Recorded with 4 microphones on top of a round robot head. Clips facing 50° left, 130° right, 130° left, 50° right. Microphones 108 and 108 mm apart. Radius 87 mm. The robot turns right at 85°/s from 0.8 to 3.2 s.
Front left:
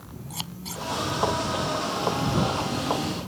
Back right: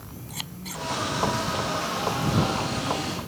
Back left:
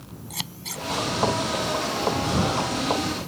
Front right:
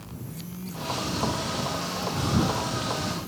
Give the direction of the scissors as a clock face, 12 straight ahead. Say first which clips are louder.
Front left 1 dB, back left 1 dB; 8 o'clock.